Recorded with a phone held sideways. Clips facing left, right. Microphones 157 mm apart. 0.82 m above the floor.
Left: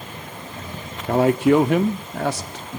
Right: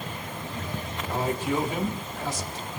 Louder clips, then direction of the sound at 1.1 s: Left 12 dB; 75° left (ahead or behind).